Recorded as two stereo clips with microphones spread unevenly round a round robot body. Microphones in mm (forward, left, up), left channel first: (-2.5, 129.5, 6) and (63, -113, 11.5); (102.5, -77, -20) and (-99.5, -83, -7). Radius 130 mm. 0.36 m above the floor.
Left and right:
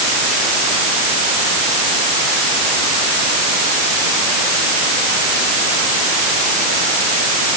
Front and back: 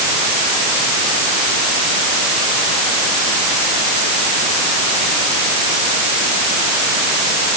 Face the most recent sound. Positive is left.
No sound to turn to.